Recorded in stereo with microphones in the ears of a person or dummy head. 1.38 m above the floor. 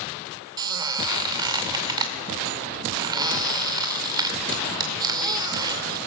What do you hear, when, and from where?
0.6 s a squeak: 20° right (ahead or behind), 2 m